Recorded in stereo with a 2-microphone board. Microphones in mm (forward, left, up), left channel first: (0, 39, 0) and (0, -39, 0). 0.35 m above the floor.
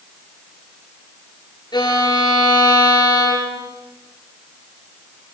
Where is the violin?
65° left (ahead or behind), 7 m.